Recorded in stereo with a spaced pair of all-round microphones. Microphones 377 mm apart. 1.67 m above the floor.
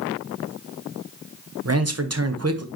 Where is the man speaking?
40° right (ahead or behind), 1.1 m.